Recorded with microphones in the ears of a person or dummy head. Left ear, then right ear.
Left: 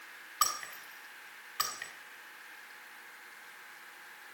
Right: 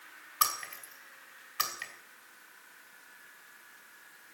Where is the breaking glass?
5° right (ahead or behind), 3 m.